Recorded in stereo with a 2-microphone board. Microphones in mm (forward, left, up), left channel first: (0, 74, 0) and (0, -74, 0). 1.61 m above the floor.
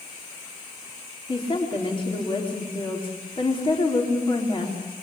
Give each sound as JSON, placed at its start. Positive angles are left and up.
{"t": 1.3, "sound": "a woman speaking", "side_deg": 35, "distance_m": 4.0}